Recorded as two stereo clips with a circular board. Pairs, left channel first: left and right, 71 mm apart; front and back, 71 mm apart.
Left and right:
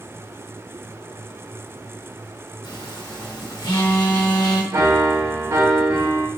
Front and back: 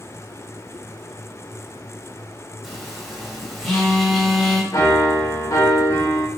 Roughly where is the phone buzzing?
Left.